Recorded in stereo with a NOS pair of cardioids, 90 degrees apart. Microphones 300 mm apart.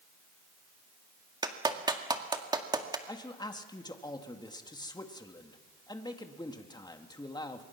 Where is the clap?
15° right, 2 m.